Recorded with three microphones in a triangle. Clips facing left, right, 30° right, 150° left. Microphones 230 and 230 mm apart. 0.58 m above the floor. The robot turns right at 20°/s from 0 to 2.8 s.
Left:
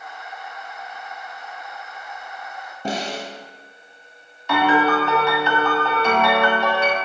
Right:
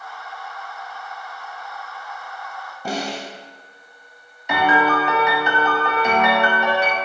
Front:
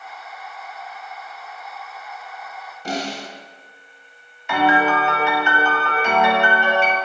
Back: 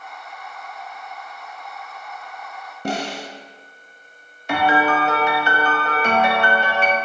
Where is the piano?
160° right, 0.7 m.